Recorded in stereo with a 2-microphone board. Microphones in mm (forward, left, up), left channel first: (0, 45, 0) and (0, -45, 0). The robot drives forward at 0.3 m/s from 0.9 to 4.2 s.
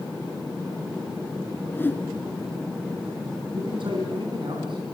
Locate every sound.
1.7 s a whoosh: 20° left (ahead or behind), 2.5 m; by 2.0 s 25° left (ahead or behind), 2 m
3.5 s a man speaking: 65° right (ahead or behind), 3 m; by 4.8 s 60° right (ahead or behind), 3 m